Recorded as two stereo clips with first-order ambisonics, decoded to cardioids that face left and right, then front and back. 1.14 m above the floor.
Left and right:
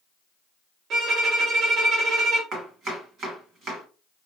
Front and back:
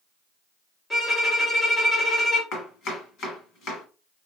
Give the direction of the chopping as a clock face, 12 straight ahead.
1 o'clock.